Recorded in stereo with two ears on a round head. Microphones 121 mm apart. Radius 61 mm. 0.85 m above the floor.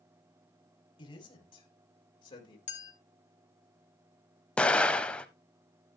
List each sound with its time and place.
1.0 s a man speaking: 35° left (ahead or behind), 3.5 m
2.7 s a clink: 50° left (ahead or behind), 1.5 m
4.6 s an explosion: 10° left (ahead or behind), 0.7 m